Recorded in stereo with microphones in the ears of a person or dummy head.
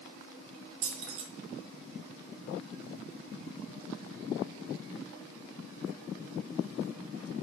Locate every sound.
0.8 s keys jangling: 65° right (ahead or behind), 0.6 m